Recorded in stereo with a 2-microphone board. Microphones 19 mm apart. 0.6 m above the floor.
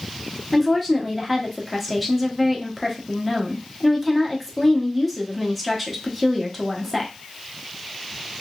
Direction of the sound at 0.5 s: 5° left (ahead or behind).